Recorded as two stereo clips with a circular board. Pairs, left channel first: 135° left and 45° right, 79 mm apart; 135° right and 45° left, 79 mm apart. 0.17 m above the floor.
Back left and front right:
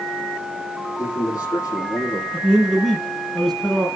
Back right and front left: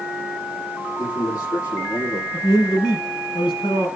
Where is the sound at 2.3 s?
140° right, 6.5 m.